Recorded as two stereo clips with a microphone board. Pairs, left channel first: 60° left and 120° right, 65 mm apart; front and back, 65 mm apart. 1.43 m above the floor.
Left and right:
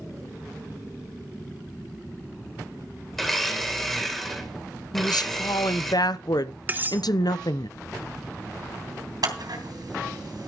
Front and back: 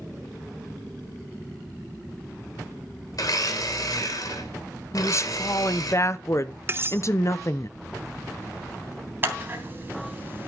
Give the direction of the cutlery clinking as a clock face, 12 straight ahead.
5 o'clock.